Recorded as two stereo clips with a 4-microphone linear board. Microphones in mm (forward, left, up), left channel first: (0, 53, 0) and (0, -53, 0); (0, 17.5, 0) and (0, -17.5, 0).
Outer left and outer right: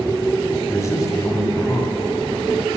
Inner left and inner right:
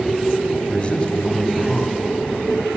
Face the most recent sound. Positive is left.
turn(degrees=30)  # may be behind; listen again after turning